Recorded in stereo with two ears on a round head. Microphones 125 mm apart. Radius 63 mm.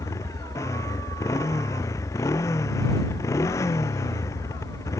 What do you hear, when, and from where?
0.0 s a motorcycle: 20° left (ahead or behind)